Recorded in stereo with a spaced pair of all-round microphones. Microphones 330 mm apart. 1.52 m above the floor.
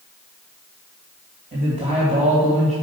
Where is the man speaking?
25° right (ahead or behind), 2.5 m.